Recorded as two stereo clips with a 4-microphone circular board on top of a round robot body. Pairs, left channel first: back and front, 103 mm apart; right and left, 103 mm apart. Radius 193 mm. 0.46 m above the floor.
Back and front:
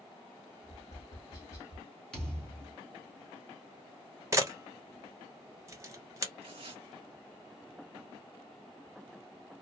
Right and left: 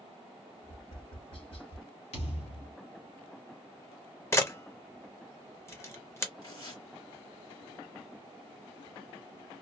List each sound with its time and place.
0.6 s tapping: 120° right, 0.9 m
2.1 s a thud: 100° right, 1.0 m
4.3 s a camera shutter: 40° right, 1.2 m
6.4 s tearing paper: 40° right, 1.5 m